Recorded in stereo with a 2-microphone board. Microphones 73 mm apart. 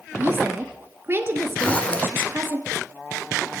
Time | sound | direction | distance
0.2 | a woman speaking | 35° right (ahead or behind) | 2 m
1.6 | a zipper | 15° left (ahead or behind) | 1.9 m